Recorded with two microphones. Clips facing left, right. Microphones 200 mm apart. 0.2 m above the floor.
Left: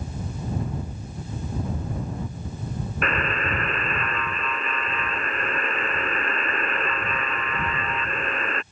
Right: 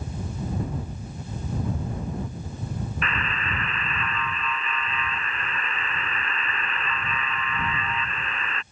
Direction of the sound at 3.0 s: 45° left (ahead or behind).